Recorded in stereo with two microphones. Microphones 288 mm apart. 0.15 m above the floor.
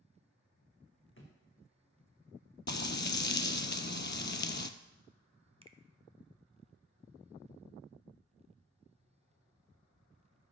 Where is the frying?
40° left (ahead or behind), 0.6 m.